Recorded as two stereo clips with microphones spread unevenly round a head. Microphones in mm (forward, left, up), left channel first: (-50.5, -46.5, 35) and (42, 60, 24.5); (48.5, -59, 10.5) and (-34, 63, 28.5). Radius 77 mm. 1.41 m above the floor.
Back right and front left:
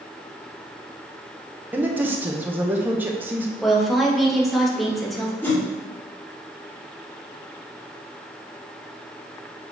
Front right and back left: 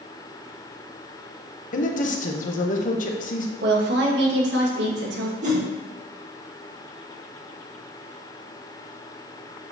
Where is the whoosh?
155° left, 1.6 m.